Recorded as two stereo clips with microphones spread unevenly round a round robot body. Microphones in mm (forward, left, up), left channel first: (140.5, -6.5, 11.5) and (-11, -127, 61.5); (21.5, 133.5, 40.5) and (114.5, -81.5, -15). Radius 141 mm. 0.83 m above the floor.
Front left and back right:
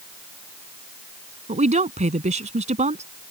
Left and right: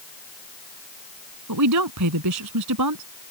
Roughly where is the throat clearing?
No throat clearing in this recording.